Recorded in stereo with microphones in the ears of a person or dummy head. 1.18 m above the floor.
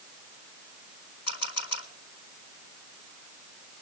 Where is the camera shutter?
85° left, 4.5 m.